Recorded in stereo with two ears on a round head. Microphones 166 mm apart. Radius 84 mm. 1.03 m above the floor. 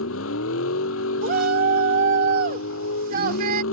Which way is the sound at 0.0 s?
85° left.